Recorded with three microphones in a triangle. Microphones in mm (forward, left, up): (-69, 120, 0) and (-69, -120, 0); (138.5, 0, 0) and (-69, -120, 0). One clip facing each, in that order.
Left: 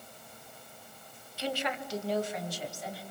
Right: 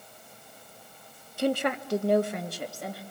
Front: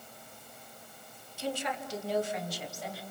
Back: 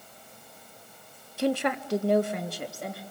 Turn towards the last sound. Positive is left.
turn(degrees=-115)